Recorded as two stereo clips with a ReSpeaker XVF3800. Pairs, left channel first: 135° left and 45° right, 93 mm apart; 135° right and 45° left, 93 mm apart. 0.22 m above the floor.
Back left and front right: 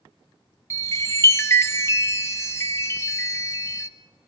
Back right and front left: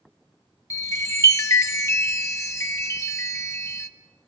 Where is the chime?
Straight behind, 1.1 m.